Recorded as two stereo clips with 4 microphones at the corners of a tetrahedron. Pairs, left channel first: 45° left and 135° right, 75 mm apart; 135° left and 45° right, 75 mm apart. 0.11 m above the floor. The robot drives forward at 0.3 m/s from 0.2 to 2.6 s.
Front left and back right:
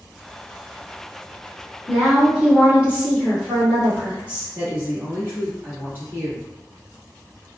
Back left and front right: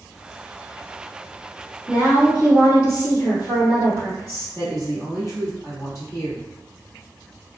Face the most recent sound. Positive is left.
turn(degrees=170)